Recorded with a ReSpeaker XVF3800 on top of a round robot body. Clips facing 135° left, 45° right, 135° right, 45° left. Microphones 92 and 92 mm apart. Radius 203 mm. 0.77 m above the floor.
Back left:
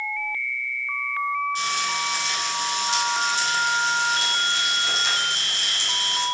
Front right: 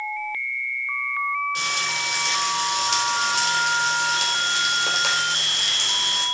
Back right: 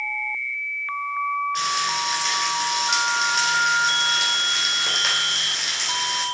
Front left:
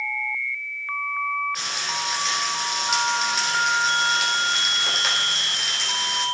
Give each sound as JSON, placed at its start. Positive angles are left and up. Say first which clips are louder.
{"t": 1.6, "sound": "frying", "louder": "back left 2 dB, back right 6 dB", "azimuth_deg": -45, "distance_m": 4.5}